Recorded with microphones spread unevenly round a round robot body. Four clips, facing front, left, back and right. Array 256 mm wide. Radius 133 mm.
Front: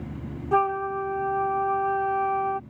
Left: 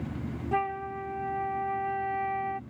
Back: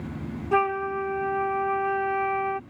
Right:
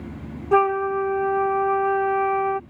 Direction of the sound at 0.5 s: 90° right.